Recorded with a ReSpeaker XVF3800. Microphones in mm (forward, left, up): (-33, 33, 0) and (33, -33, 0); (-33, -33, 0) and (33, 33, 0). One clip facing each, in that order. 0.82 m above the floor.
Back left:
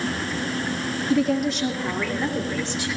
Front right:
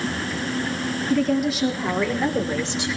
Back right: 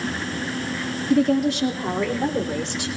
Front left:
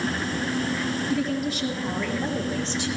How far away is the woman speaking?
About 1.4 m.